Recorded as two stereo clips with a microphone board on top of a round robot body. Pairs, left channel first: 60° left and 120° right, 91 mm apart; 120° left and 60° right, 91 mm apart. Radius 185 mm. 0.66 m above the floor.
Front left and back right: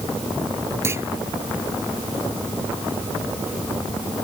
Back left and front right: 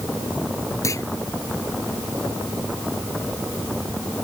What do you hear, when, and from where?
0.8 s a clunk: straight behind